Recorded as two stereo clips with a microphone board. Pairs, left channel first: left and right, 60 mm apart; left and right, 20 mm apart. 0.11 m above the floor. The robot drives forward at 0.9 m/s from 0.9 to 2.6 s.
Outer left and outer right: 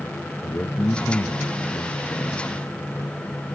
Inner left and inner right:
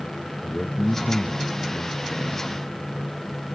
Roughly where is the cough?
No cough in this recording.